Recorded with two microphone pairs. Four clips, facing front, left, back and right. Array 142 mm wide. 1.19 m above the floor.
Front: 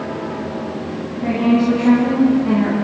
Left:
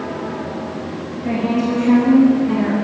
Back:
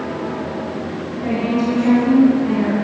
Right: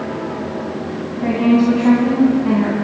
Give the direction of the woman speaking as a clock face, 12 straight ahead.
3 o'clock.